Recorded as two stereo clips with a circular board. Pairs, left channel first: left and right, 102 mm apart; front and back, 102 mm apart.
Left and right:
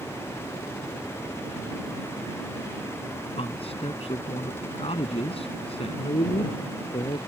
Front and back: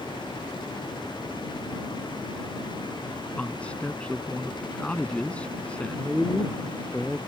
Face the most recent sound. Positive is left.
turn(degrees=80)